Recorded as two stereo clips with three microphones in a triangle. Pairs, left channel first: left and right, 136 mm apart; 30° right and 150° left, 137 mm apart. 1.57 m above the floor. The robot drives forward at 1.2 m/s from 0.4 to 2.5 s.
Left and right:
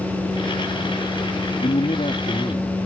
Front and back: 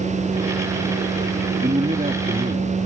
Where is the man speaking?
120° left; by 2.8 s 135° left.